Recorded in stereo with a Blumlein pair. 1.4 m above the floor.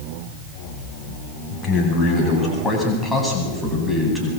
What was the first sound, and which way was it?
A man speaking, 25° left.